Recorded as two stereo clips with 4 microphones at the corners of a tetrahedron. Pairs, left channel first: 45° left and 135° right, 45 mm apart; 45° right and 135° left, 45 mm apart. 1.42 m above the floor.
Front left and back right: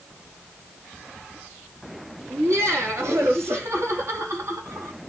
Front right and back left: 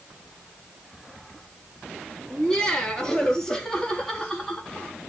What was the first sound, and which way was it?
Laughter, 120° right.